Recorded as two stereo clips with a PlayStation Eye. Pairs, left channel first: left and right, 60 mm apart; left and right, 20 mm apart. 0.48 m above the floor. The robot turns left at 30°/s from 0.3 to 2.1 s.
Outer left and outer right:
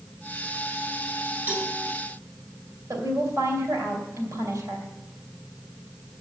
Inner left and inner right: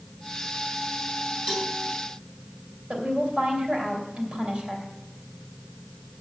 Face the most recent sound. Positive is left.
turn(degrees=-65)  # may be behind; listen again after turning